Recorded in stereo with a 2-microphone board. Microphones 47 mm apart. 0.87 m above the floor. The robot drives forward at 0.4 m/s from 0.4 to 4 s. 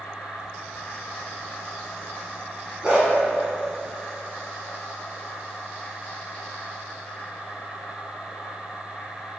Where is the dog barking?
15° right (ahead or behind), 2.5 m.